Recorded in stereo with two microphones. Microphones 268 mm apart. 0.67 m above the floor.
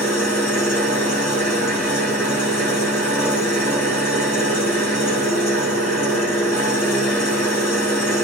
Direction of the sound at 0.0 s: 65° left (ahead or behind).